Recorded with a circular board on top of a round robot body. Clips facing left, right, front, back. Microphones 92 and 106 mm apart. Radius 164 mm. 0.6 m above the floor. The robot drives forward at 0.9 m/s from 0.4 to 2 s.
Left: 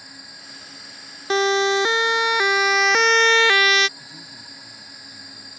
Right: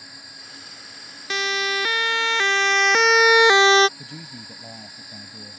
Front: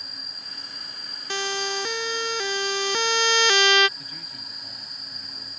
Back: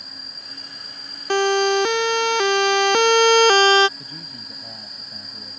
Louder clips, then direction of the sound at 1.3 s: Left 8 dB, back 12 dB; 145° left.